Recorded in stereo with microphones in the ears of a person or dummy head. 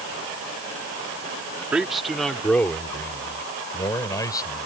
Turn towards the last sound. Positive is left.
turn(degrees=20)  # may be behind; listen again after turning